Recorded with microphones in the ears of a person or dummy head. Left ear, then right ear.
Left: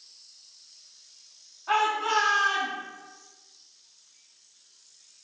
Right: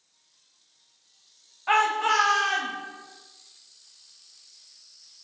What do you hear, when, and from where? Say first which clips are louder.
1.7 s a shout: right 3 dB; 35° right (ahead or behind), 0.6 m